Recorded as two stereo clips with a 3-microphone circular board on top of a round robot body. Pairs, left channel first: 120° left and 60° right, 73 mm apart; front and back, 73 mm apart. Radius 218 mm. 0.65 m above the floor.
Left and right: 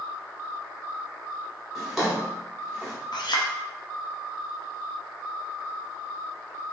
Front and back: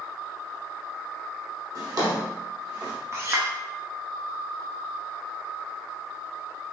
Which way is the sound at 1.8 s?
145° right.